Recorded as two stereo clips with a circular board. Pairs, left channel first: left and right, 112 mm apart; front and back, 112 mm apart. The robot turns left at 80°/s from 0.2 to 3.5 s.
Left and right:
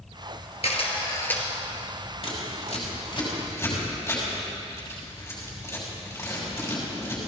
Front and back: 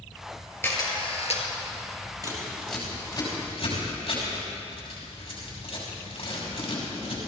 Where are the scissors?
130° left, 5.5 m; by 7.2 s 30° left, 5.5 m.